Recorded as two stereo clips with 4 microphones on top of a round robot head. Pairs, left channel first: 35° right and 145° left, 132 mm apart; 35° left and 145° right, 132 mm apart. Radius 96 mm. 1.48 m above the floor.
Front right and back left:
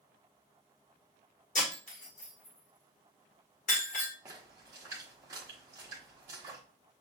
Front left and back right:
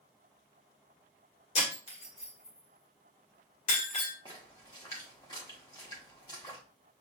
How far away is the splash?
About 1.1 m.